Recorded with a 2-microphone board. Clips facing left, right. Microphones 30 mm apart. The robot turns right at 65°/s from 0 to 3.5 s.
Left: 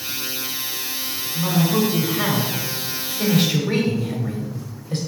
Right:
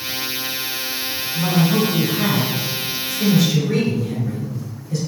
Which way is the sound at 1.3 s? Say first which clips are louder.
Right 2 dB; 30° right.